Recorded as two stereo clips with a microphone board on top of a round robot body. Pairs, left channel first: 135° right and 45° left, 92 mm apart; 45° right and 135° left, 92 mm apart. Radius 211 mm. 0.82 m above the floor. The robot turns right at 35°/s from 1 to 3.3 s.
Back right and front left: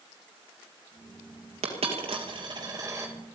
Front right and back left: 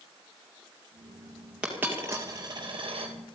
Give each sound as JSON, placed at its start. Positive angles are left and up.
{"t": 1.6, "sound": "a dropped coin", "azimuth_deg": 55, "distance_m": 2.5}